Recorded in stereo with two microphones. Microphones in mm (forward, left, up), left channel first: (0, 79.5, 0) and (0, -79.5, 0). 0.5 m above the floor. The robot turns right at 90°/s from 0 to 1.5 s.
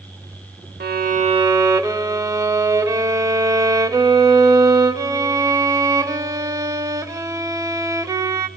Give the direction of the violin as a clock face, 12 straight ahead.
3 o'clock.